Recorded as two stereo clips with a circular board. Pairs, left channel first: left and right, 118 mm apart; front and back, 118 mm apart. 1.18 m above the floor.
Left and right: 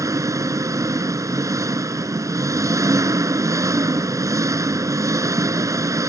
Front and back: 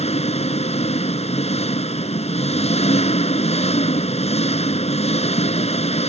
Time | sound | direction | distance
0.0 | an engine running | 25° right | ?